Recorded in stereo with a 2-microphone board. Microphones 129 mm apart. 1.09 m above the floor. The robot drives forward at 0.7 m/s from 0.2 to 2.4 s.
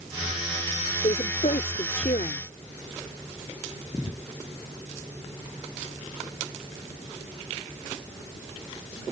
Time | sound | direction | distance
1.0 | a woman speaking | 65° left (ahead or behind) | ?